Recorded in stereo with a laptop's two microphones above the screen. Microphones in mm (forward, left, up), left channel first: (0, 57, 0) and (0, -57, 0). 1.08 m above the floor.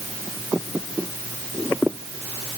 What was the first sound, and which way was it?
Only background noise.